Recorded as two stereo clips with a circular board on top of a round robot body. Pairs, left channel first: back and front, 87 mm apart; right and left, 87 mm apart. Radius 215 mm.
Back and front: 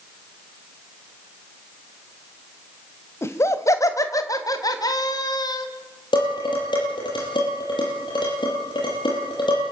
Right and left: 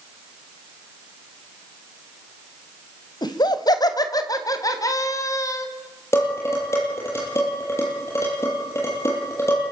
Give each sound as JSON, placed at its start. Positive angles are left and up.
{"t": 3.2, "sound": "laughter", "azimuth_deg": -120, "distance_m": 2.5}
{"t": 6.1, "sound": "dishes clattering", "azimuth_deg": -145, "distance_m": 10.0}